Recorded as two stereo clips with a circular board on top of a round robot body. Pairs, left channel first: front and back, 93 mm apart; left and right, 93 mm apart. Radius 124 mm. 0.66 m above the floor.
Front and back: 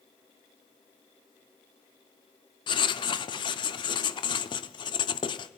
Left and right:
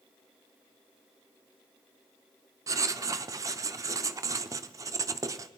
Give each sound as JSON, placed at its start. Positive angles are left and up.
{"t": 2.7, "sound": "writing", "azimuth_deg": -35, "distance_m": 0.6}